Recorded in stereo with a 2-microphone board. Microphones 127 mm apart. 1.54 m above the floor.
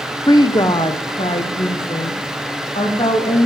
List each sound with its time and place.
0.3 s a woman speaking: 30° left (ahead or behind), 0.8 m; by 3.5 s 50° left (ahead or behind), 3 m